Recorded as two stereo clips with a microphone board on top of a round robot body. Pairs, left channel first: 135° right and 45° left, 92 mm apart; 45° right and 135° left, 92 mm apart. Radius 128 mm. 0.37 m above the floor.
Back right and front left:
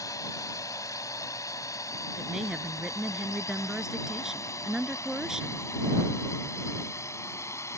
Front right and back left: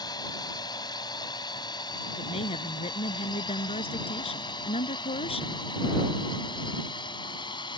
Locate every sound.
0.0 s a drone: 85° right; by 7.8 s 80° right
2.2 s a woman speaking: 40° right